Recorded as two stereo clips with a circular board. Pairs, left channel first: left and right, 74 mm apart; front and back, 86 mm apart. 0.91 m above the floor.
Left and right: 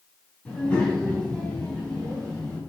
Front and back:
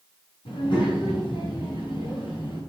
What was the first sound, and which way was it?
A child speaking, 10° left.